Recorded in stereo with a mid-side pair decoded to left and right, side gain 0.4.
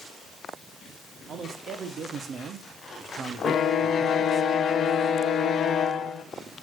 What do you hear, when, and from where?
1.3 s a man speaking: 65° right, 3 m; by 4.4 s 35° right, 1.3 m
3.4 s a violin: 60° left, 1.2 m